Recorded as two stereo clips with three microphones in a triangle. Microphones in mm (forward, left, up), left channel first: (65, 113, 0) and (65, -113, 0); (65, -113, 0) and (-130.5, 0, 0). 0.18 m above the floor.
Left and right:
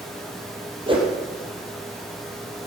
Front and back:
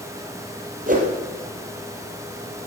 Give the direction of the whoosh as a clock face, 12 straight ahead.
5 o'clock.